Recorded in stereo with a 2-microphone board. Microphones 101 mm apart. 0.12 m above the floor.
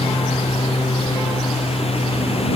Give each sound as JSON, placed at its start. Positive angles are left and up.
{"t": 0.0, "sound": "a lawn mower", "side_deg": 80}